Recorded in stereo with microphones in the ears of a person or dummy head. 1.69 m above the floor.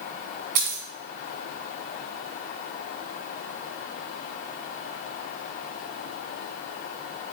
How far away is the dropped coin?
About 1.6 m.